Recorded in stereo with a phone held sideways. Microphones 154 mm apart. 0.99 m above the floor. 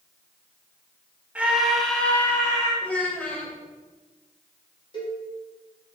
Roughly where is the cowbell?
Left.